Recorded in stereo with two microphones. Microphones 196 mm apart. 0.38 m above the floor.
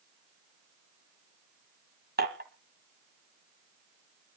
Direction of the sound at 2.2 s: 60° right (ahead or behind).